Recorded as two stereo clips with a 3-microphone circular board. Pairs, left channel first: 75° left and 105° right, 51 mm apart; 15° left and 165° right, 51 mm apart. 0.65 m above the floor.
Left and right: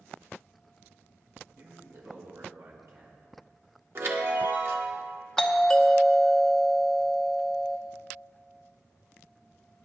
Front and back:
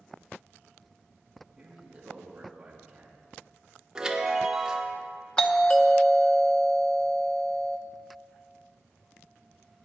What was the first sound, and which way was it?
A man speaking, 90° right.